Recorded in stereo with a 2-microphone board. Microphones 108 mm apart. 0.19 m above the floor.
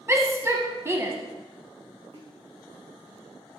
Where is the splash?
55° right (ahead or behind), 3 m.